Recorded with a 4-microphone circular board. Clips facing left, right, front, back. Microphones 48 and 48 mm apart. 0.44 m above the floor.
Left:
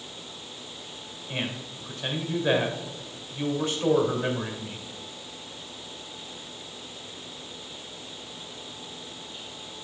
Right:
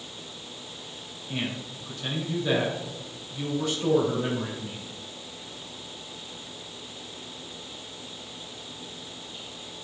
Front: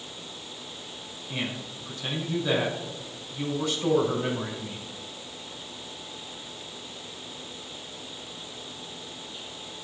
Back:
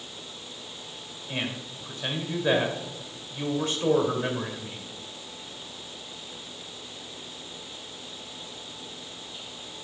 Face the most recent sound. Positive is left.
turn(degrees=145)